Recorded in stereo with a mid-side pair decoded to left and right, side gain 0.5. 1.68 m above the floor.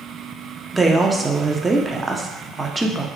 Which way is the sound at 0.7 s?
15° right.